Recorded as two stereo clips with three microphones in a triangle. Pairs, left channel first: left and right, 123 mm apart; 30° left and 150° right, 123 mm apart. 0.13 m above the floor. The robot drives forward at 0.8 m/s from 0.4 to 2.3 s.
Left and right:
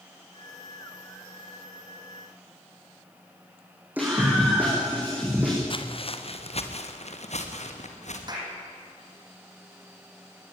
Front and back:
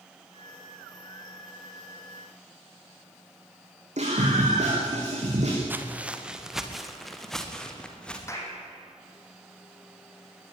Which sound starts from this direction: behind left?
Footsteps, at 5.7 s.